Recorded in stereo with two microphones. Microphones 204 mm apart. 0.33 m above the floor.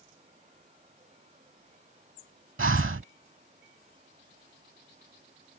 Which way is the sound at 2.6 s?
85° right.